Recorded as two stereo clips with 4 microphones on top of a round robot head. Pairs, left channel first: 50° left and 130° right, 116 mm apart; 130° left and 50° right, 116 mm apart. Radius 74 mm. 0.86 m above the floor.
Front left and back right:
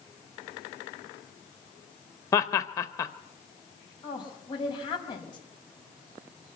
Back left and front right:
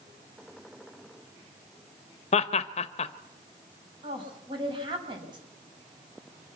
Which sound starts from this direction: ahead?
A woman speaking, at 4.0 s.